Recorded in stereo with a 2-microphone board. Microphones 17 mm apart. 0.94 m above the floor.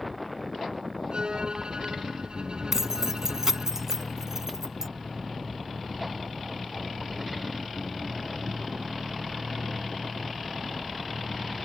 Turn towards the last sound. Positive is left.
turn(degrees=-25)  # may be behind; listen again after turning